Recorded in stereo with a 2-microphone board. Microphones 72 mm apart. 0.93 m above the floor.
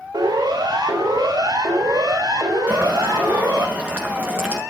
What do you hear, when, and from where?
0.1 s a siren: 65° right (ahead or behind), 5.5 m; by 3.7 s 50° right (ahead or behind), 6.5 m
2.7 s boiling: 15° right (ahead or behind), 6.5 m